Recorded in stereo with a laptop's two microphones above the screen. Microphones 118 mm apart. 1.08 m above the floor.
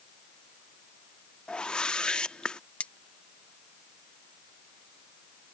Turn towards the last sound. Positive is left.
turn(degrees=10)  # may be behind; listen again after turning